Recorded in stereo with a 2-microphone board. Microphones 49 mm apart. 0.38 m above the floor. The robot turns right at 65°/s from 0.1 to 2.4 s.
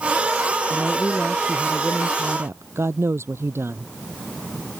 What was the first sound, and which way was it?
A woman speaking, 130° left.